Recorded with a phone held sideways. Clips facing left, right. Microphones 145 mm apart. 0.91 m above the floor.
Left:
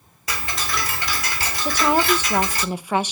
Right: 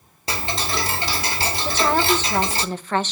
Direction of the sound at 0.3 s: 30° right (ahead or behind).